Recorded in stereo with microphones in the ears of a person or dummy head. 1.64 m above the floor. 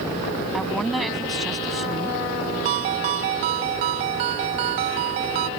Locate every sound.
0.5 s a woman speaking: centre (ahead or behind)
2.6 s a ringtone: 20° right (ahead or behind)